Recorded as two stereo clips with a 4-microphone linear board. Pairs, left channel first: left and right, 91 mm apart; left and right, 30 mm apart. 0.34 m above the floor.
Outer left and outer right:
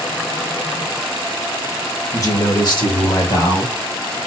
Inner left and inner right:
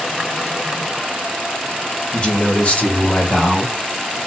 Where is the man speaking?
35° left (ahead or behind), 1.1 m; by 3.8 s 50° left (ahead or behind), 1.9 m.